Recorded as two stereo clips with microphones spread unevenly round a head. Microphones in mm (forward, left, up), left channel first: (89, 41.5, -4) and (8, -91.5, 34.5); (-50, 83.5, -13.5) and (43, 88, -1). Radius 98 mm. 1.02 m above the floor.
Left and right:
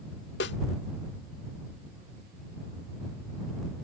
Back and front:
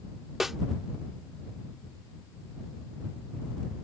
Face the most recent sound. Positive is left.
turn(degrees=85)